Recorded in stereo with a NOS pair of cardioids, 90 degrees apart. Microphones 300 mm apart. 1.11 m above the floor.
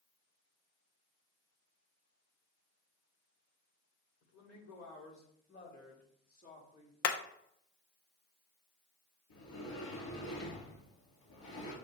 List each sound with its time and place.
4.2 s a woman speaking: 60° left, 3 m; by 6.9 s 20° left, 3.5 m
7.0 s hammering: 55° left, 0.7 m
9.3 s a sliding door: 50° left, 3 m